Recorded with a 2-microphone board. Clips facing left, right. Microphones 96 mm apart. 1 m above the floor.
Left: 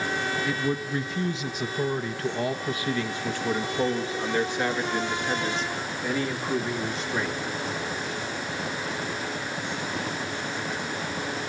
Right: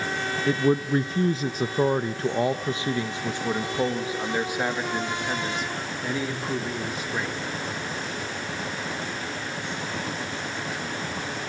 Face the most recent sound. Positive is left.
turn(degrees=-5)  # may be behind; listen again after turning